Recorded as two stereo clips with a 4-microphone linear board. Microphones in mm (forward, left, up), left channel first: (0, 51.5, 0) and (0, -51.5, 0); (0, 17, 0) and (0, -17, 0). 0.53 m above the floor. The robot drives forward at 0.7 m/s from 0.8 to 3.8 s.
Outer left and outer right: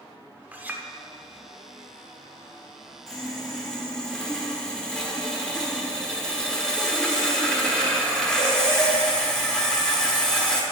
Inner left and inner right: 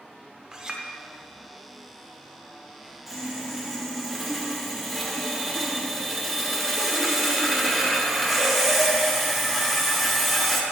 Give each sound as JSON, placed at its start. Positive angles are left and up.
{"t": 0.5, "sound": "a clink", "side_deg": -15, "distance_m": 0.6}
{"t": 3.1, "sound": "sawing", "side_deg": 5, "distance_m": 1.2}